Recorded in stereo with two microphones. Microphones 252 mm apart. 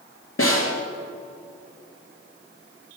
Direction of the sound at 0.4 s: 55° left (ahead or behind).